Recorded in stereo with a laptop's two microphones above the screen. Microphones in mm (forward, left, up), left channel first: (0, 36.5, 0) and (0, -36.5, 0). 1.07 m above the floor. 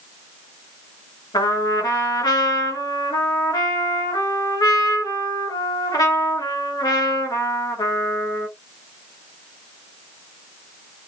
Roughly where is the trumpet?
Left.